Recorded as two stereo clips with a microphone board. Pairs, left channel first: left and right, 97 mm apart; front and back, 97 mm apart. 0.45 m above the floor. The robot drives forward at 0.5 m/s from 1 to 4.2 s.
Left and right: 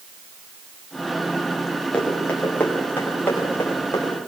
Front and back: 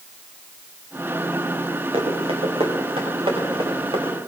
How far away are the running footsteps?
About 7 m.